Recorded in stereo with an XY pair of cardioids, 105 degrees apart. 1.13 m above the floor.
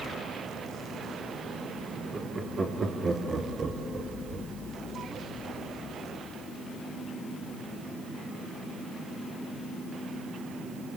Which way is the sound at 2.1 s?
35° right.